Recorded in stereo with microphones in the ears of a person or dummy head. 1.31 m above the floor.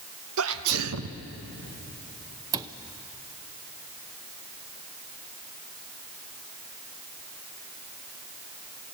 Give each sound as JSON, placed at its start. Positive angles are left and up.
{"t": 0.4, "sound": "a sneeze", "side_deg": -80, "distance_m": 1.0}
{"t": 2.5, "sound": "a cupboard door", "side_deg": -20, "distance_m": 0.6}